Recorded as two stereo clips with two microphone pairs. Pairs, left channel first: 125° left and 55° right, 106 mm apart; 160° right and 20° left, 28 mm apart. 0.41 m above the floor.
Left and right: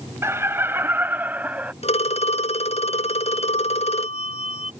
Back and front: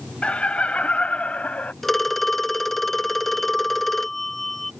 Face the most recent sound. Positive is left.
turn(degrees=120)